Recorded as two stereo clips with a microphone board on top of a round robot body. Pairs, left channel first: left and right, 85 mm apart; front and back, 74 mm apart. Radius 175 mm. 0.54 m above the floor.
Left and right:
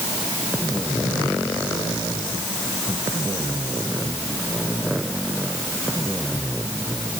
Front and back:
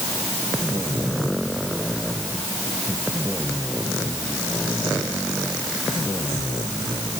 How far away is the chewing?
No chewing in this recording.